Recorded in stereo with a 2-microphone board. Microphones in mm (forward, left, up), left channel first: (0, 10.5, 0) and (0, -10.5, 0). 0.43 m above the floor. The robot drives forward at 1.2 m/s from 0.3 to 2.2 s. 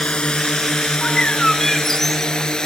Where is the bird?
55° left (ahead or behind); by 2.3 s 15° left (ahead or behind).